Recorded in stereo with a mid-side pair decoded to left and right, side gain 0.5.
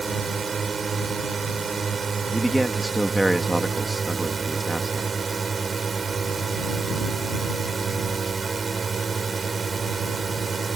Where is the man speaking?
5° right.